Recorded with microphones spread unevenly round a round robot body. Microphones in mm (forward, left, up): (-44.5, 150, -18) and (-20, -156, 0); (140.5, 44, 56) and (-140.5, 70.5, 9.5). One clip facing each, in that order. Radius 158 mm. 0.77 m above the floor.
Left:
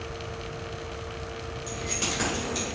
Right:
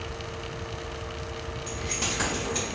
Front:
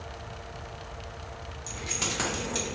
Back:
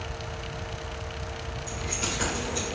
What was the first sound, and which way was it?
Keys jangling, 10° left.